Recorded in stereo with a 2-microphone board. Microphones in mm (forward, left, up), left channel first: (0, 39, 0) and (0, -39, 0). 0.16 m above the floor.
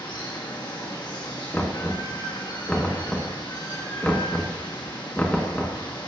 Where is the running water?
65° left (ahead or behind), 2.5 m.